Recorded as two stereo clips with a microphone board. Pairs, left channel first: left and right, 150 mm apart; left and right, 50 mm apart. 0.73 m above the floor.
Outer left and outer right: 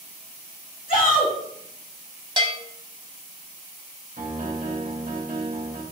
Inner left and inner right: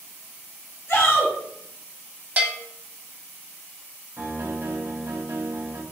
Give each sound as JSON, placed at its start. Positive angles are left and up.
{"t": 0.9, "sound": "a shout", "side_deg": 65, "distance_m": 2.0}
{"t": 2.4, "sound": "a bell", "side_deg": -35, "distance_m": 0.8}
{"t": 4.2, "sound": "a piano", "side_deg": -65, "distance_m": 0.9}